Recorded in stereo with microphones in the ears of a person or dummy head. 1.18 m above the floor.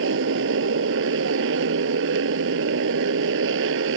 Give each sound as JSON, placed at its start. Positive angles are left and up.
{"t": 0.0, "sound": "a motorcycle", "side_deg": -70}